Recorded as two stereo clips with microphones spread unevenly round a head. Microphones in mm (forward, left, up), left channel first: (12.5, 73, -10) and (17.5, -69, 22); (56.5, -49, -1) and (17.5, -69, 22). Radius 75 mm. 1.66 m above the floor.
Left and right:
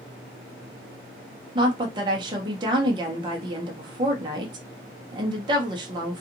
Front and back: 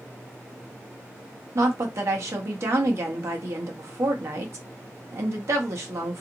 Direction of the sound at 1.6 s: 150° right.